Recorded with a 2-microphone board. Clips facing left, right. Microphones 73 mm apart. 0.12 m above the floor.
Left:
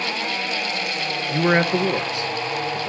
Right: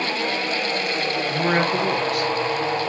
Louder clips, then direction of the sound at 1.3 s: Left 3 dB; 25° left (ahead or behind).